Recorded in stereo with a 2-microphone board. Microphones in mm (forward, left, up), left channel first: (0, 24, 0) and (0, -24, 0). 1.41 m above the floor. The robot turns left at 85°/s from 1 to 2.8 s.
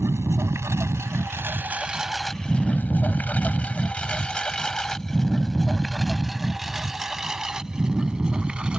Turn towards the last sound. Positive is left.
turn(degrees=-20)  # may be behind; listen again after turning